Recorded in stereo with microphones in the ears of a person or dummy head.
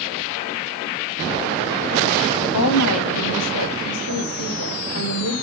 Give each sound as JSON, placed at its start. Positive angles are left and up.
{"t": 2.5, "sound": "a woman speaking", "side_deg": 80, "distance_m": 1.7}